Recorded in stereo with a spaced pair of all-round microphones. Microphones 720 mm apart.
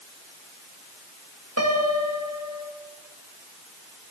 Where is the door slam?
I don't hear a door slam.